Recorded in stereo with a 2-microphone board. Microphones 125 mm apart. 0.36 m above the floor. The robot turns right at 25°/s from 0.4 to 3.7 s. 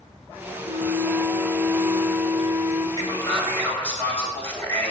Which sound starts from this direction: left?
A man speaking, at 3.0 s.